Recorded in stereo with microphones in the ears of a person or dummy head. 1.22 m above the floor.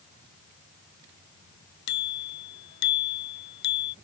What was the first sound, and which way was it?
A bicycle bell, 60° left (ahead or behind).